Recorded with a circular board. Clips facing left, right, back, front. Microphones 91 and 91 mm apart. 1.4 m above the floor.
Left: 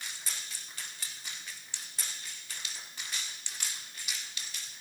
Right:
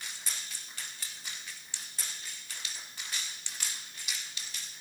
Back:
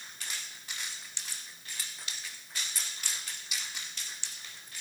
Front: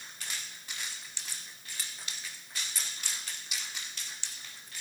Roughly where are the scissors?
No scissors in this recording.